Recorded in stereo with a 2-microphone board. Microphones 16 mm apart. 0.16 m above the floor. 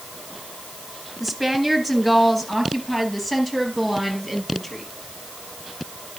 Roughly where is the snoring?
No snoring in this recording.